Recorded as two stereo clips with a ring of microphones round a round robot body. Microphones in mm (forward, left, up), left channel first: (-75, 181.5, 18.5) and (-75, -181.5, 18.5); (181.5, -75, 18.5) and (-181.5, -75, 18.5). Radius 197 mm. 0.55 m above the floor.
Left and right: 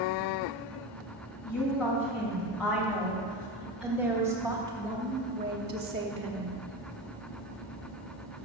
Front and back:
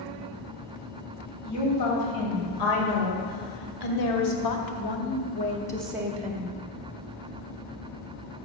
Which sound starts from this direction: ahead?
A woman speaking, at 1.4 s.